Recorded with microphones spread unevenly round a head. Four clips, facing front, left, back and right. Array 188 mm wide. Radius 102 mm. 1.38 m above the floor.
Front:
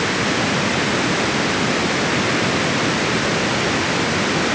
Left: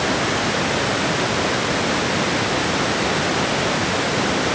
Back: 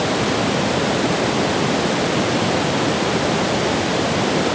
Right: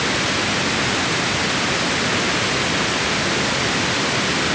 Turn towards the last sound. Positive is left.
No sound to turn to.